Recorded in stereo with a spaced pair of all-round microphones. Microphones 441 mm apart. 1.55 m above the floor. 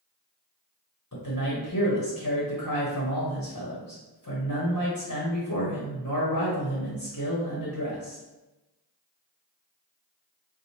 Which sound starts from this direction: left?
A man speaking, at 1.1 s.